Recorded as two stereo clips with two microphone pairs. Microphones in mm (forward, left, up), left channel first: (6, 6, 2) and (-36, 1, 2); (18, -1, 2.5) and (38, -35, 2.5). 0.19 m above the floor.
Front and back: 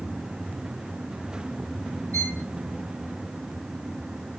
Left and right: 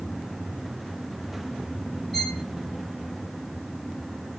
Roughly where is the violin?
Ahead left.